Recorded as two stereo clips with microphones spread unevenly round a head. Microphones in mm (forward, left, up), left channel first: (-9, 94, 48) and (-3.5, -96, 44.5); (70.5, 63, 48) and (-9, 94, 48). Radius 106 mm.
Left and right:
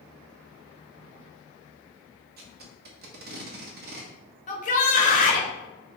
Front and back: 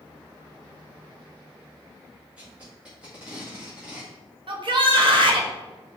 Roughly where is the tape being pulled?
Behind right.